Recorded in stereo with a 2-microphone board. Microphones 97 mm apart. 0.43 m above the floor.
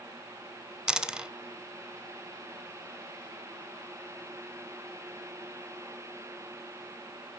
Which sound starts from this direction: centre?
A dropped coin, at 0.9 s.